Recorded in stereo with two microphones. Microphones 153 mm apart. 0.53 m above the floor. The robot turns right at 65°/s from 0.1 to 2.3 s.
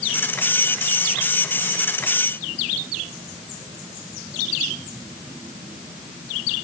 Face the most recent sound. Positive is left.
No sound to turn to.